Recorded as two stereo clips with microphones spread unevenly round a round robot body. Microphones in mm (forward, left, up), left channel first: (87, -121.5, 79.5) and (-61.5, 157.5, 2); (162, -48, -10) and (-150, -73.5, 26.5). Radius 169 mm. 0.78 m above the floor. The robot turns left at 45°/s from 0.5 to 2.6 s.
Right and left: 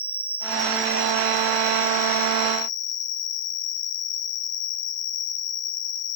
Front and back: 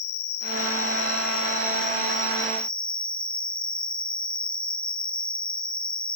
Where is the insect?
25° left, 2.0 m; by 6.2 s 70° right, 2.0 m.